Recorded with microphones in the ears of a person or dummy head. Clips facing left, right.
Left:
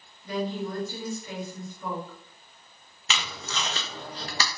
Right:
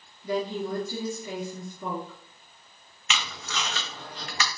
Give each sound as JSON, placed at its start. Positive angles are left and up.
{"t": 0.2, "sound": "a woman speaking", "side_deg": -25, "distance_m": 1.3}
{"t": 3.1, "sound": "tape being pulled", "side_deg": 30, "distance_m": 0.6}